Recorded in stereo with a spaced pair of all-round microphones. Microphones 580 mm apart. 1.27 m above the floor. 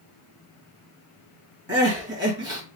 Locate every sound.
1.7 s crying: 20° right (ahead or behind), 2 m